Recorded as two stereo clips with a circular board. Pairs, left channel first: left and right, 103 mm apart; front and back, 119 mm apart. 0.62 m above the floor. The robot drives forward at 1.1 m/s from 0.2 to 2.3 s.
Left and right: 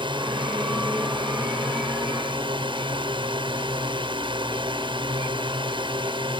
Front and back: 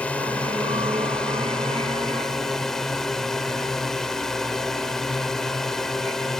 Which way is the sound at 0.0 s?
75° right.